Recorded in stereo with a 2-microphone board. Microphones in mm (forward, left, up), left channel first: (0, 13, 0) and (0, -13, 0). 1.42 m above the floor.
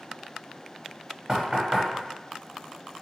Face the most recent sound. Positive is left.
turn(degrees=-20)  # may be behind; listen again after turning